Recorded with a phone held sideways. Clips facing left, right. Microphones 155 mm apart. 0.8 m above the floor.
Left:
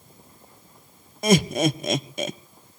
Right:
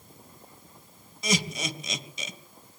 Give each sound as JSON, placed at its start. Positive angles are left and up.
{"t": 1.2, "sound": "laughter", "side_deg": 65, "distance_m": 0.7}